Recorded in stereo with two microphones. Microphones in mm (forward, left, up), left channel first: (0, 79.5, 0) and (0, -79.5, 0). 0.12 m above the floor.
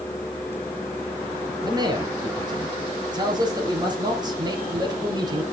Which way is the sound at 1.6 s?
25° right (ahead or behind).